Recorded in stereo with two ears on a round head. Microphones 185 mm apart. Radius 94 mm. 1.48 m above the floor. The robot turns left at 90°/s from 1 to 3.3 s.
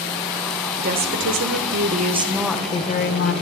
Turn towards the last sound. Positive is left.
turn(degrees=105)